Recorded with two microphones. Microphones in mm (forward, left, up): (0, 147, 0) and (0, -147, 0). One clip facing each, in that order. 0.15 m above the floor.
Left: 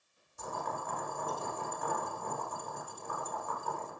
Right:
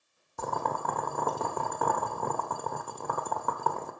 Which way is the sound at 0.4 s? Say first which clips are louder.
Right 7 dB; 80° right.